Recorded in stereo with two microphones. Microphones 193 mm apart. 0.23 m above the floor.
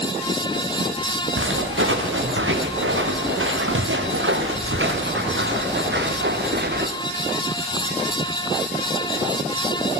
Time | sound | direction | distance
1.4 | footsteps | 85° right | 5.5 m